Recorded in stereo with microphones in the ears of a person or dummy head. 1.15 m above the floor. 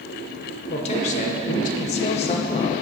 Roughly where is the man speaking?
Left.